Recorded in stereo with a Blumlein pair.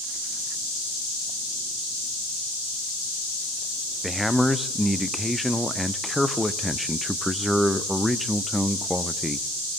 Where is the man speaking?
Straight ahead, 0.6 m.